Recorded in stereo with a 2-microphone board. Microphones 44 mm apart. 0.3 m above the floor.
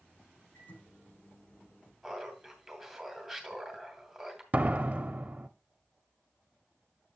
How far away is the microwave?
About 7.5 m.